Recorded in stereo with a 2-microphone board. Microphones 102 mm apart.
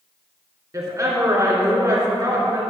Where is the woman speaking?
35° right (ahead or behind), 1.9 m.